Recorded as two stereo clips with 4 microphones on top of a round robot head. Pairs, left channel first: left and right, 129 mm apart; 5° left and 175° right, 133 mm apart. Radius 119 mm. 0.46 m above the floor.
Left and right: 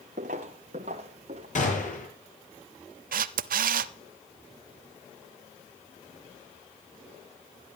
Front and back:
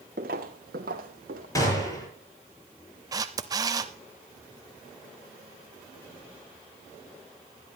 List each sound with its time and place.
0.2 s footsteps: 135° right, 0.8 m; by 1.4 s 145° right, 1.8 m
1.6 s a gunshot: 70° left, 7 m
3.1 s a camera shutter: 110° right, 0.6 m